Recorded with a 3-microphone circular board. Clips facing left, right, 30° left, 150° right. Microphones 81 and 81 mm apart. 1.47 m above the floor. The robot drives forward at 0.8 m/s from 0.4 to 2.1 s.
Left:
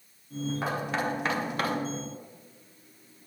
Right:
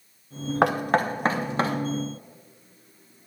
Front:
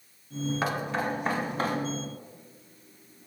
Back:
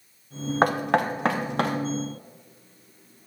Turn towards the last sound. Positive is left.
turn(degrees=-160)